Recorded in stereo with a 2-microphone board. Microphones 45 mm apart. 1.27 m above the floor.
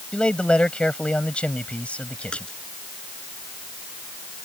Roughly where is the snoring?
No snoring in this recording.